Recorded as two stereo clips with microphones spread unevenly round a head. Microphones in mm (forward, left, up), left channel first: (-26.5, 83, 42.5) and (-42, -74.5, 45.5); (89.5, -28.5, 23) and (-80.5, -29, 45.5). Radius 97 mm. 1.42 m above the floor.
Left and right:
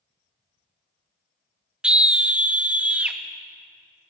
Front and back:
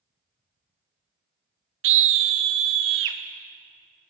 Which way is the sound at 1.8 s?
Straight behind.